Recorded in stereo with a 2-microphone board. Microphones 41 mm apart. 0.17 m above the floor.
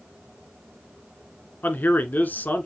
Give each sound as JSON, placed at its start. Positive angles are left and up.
{"t": 1.6, "sound": "a man speaking", "side_deg": 50, "distance_m": 1.7}